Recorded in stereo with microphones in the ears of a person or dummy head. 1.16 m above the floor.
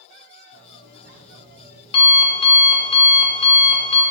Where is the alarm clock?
35° left (ahead or behind), 1.5 m.